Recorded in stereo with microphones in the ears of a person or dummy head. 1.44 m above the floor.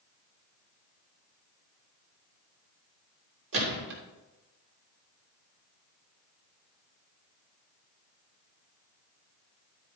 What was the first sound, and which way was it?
A gunshot, 65° right (ahead or behind).